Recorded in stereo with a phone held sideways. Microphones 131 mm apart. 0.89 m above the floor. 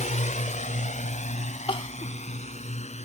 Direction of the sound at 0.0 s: 75° left (ahead or behind).